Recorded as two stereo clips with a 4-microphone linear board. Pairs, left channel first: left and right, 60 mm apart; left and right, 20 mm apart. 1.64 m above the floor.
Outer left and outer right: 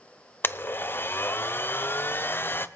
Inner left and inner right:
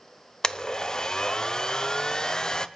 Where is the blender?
35° left (ahead or behind), 0.5 m.